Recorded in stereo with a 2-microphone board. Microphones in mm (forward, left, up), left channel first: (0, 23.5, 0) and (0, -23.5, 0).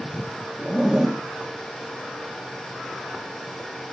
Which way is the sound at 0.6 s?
5° right (ahead or behind).